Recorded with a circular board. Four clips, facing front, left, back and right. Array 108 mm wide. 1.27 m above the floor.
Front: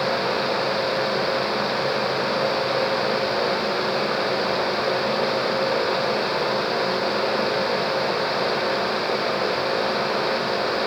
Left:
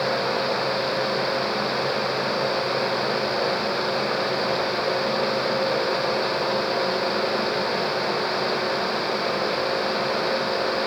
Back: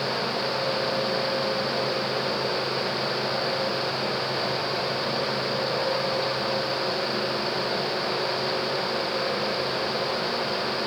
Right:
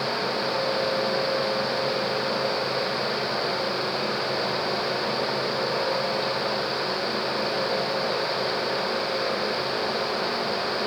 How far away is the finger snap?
I don't hear a finger snap.